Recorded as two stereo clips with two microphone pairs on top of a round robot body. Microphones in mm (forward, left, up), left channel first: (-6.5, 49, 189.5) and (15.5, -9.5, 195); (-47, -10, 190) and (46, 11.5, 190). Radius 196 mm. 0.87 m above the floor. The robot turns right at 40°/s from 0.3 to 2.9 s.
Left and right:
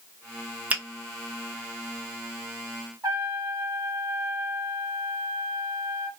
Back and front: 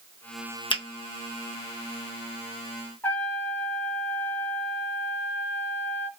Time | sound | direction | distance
0.7 | a finger snap | 135° right | 1.0 m
3.0 | a trumpet | 100° right | 0.8 m